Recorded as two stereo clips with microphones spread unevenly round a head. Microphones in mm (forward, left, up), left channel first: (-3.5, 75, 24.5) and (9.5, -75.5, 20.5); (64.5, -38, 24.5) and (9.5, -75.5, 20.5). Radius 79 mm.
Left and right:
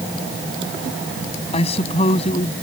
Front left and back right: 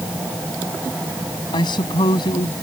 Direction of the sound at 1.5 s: 40° left.